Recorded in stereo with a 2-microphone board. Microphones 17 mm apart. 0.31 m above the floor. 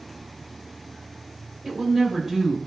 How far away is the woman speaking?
About 0.9 m.